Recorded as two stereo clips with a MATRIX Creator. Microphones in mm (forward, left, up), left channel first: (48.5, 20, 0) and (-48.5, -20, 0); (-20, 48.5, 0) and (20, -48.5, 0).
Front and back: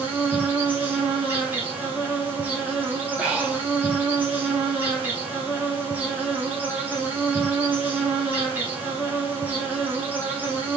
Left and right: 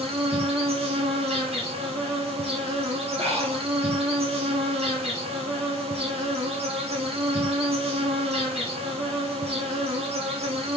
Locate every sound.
0.0 s an insect: 85° right, 4 m
3.2 s breathing: 80° right, 4 m